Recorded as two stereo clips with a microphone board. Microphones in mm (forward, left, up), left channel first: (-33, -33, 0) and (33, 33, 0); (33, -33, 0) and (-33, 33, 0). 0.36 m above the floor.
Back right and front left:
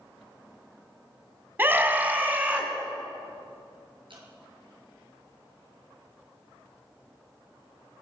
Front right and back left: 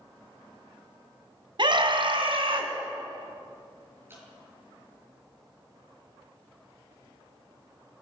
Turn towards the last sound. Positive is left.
turn(degrees=70)